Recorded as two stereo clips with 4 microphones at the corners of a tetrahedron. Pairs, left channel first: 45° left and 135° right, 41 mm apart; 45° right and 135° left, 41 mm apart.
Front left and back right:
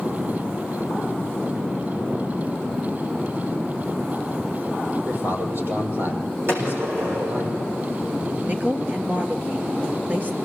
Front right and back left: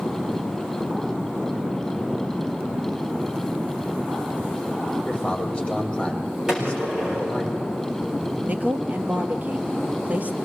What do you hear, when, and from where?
5.1 s a man speaking: 110° right, 5.5 m
6.5 s a gunshot: 150° right, 6.5 m
8.5 s a woman speaking: straight behind, 3 m